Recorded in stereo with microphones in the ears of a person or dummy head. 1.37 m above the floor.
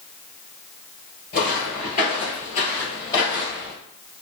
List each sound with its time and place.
1.3 s footsteps: 40° left (ahead or behind), 1.8 m; by 3.7 s 15° left (ahead or behind), 1.9 m